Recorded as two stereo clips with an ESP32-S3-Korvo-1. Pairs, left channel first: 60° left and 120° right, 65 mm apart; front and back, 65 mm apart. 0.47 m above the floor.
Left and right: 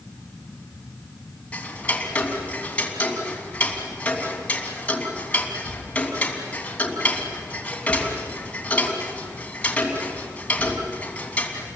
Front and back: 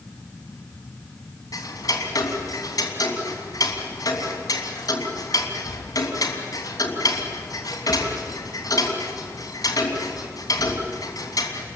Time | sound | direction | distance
1.5 | ticking | 10° right | 3 m